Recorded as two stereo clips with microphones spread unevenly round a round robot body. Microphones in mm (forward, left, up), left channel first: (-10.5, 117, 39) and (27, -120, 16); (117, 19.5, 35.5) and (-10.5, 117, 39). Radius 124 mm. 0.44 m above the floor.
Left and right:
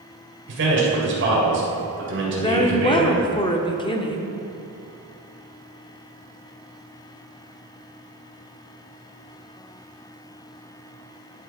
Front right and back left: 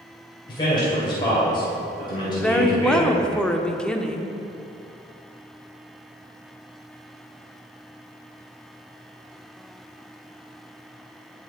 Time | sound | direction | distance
0.5 | a man speaking | 100° right | 2.5 m
2.3 | a woman speaking | 40° left | 0.8 m